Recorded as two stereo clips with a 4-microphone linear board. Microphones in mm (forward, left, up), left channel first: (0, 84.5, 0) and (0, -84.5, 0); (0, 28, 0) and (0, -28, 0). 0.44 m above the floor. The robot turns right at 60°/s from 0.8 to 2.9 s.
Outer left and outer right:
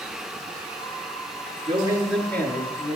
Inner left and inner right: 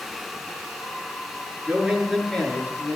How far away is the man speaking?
About 7 m.